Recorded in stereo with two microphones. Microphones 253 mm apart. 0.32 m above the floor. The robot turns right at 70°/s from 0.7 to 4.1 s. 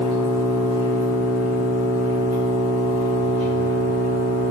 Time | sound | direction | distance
0.0 | an engine running | 155° right | 1.8 m